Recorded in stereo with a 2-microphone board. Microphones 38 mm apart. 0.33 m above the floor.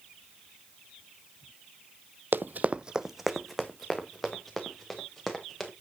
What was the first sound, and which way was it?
Running footsteps, 60° right (ahead or behind).